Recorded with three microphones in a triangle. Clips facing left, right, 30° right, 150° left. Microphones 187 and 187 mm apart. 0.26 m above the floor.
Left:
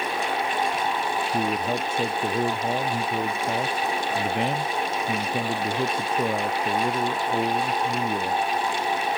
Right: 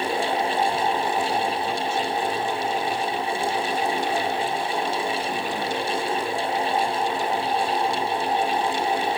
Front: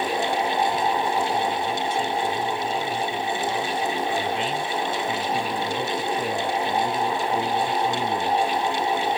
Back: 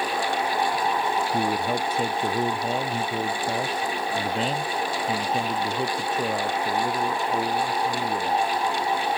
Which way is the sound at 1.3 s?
125° left.